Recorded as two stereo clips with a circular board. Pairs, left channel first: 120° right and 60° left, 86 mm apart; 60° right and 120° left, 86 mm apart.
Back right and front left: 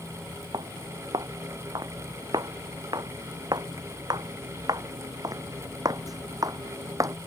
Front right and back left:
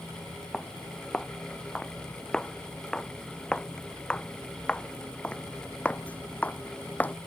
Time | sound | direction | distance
0.5 | footsteps | 25° left | ?